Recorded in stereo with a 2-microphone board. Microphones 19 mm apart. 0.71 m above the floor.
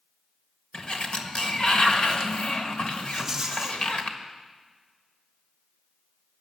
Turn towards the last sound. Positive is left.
turn(degrees=-15)  # may be behind; listen again after turning